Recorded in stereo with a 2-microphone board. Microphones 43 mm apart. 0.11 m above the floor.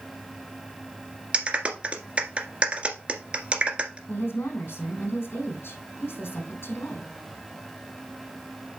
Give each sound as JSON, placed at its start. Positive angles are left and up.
{"t": 1.3, "sound": "a clap", "side_deg": -25, "distance_m": 1.7}
{"t": 4.1, "sound": "a woman speaking", "side_deg": 70, "distance_m": 4.5}